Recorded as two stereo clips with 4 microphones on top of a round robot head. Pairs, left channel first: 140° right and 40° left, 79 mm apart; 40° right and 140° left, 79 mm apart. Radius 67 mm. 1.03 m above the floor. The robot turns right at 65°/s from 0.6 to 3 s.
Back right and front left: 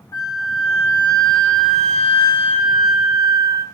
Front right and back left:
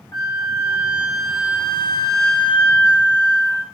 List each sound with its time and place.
0.1 s a flute: 90° right, 0.9 m; by 3.6 s 65° left, 0.9 m